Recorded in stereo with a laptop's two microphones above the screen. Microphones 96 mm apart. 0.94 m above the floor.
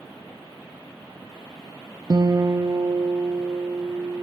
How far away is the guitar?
About 0.6 m.